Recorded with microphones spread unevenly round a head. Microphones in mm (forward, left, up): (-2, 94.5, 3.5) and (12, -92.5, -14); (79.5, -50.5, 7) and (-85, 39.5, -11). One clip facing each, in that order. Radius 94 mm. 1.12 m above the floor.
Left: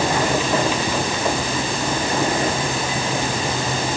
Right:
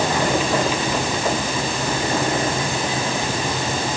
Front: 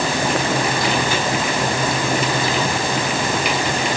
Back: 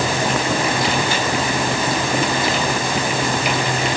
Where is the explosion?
I don't hear an explosion.